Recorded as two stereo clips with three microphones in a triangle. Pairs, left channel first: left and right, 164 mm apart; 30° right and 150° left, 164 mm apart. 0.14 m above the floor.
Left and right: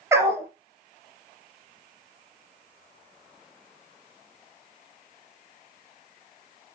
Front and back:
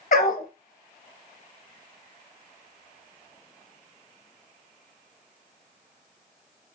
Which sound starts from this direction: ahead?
A dog barking, at 0.1 s.